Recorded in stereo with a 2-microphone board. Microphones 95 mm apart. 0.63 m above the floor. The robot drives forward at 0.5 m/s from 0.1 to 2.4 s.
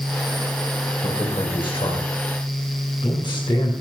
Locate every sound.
1.0 s a man speaking: 70° left (ahead or behind), 3 m; by 3.7 s 60° left (ahead or behind), 3.5 m